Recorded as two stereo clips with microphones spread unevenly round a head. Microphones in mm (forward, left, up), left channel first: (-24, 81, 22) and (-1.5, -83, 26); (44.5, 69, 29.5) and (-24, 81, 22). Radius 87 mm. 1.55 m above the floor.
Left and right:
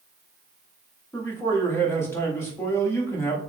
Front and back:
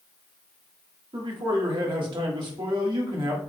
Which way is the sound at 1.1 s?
175° left.